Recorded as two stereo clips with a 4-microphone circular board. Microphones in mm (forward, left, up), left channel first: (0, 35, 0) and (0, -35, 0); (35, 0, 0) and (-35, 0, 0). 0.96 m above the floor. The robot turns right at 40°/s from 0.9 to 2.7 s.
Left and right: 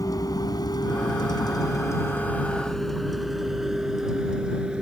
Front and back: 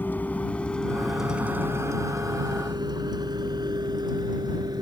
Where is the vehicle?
60° left; by 4.8 s 165° right.